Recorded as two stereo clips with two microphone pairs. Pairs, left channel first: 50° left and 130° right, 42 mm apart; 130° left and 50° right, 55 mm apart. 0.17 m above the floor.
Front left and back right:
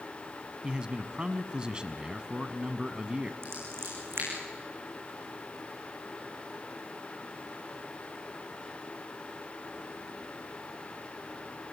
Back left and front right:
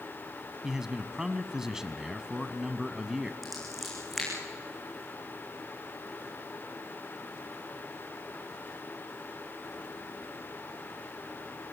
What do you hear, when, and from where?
0.6 s a man speaking: 110° right, 1.3 m
3.4 s scissors: 135° right, 9.5 m